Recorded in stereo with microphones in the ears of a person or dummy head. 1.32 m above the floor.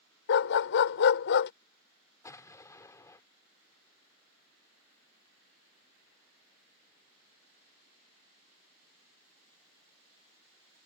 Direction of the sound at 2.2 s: 15° left (ahead or behind).